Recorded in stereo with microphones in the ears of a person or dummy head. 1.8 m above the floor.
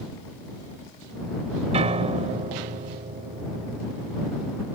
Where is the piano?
35° right (ahead or behind).